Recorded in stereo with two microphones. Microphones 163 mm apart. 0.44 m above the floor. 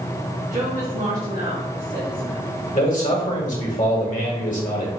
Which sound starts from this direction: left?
A man speaking, at 2.7 s.